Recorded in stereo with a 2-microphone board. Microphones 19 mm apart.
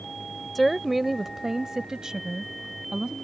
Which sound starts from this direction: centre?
A woman speaking, at 0.6 s.